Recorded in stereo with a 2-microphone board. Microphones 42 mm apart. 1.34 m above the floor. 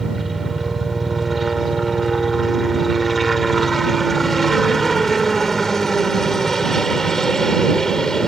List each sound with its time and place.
0.0 s a helicopter: centre (ahead or behind); by 8.3 s 15° left (ahead or behind)